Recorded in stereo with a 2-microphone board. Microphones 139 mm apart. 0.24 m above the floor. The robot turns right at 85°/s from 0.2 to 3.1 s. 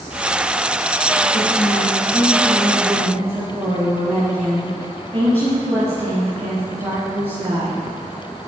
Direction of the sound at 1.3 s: 75° left.